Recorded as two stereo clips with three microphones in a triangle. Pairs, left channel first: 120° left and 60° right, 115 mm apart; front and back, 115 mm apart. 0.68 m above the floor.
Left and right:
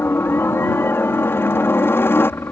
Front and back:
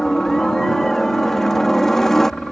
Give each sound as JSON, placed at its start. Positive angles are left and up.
{"t": 0.0, "sound": "a helicopter", "azimuth_deg": 80}